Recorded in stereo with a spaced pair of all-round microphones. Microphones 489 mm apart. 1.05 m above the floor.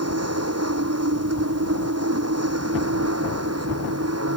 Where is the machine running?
30° right (ahead or behind).